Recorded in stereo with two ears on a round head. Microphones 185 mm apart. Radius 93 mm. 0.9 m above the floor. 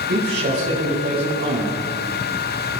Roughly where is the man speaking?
Right.